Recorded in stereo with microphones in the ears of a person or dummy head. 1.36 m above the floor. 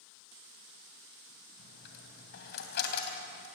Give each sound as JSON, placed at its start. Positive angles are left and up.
{"t": 1.6, "sound": "a dropped coin", "side_deg": 55, "distance_m": 3.0}